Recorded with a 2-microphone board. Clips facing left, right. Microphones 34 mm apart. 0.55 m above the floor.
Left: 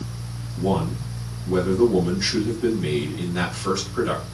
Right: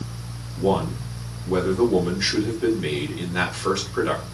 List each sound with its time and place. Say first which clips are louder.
0.6 s a man speaking: right 2 dB; 35° right (ahead or behind), 1.8 m